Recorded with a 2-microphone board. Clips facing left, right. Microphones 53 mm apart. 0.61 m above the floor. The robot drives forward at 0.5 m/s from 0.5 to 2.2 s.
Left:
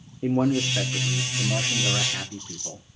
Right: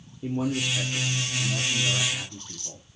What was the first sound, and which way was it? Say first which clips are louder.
A man speaking: left 5 dB; 40° left (ahead or behind).